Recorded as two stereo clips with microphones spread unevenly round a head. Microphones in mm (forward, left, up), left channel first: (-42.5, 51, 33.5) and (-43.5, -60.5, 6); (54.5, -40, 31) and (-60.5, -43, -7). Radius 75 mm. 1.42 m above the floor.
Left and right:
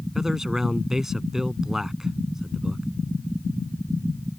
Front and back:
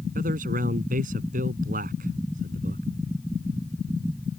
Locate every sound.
0.1 s a man speaking: 175° right